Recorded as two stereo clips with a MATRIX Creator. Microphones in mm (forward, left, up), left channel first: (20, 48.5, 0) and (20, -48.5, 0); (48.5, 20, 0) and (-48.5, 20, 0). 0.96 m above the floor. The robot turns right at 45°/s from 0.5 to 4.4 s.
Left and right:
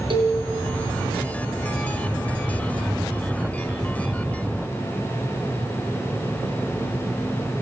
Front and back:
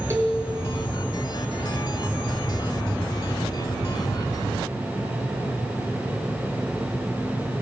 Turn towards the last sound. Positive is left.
turn(degrees=55)